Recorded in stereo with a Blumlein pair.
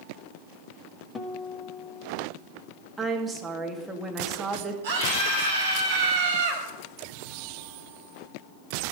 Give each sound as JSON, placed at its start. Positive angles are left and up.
{"t": 1.1, "sound": "a guitar", "azimuth_deg": 20, "distance_m": 1.4}
{"t": 3.0, "sound": "a woman speaking", "azimuth_deg": -10, "distance_m": 2.0}
{"t": 4.8, "sound": "a scream", "azimuth_deg": -60, "distance_m": 5.5}